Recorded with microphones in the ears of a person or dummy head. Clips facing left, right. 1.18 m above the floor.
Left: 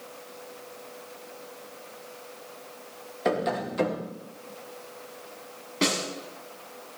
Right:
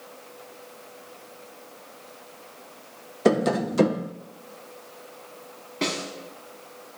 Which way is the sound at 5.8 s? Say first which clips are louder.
Left 2 dB; 5° left (ahead or behind).